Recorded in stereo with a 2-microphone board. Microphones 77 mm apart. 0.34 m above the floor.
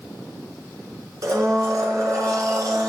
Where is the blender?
50° right (ahead or behind), 1.8 m.